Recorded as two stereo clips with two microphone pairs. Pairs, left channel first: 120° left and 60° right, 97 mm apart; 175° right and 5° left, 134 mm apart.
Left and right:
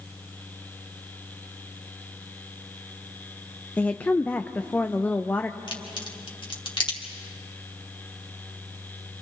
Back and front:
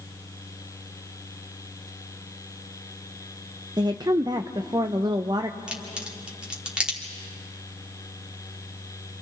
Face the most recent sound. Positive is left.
turn(degrees=85)